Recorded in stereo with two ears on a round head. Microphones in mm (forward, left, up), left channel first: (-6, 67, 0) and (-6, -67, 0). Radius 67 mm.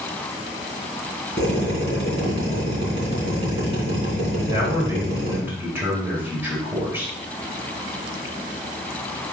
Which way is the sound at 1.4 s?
35° right (ahead or behind).